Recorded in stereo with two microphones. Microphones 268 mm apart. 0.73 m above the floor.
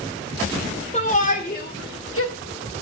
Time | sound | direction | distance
0.9 | a shout | 25° left (ahead or behind) | 2.5 m